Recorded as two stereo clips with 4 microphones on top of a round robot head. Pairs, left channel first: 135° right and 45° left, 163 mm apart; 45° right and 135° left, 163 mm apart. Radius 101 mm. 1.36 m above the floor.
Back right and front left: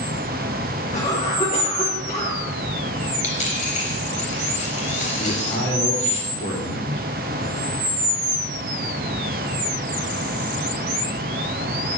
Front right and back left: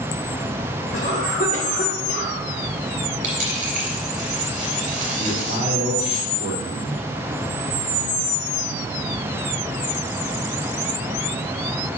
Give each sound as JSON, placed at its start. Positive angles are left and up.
{"t": 0.9, "sound": "a cough", "azimuth_deg": -85, "distance_m": 3.0}
{"t": 3.2, "sound": "a dropped coin", "azimuth_deg": 180, "distance_m": 3.5}
{"t": 5.2, "sound": "a man speaking", "azimuth_deg": -175, "distance_m": 3.0}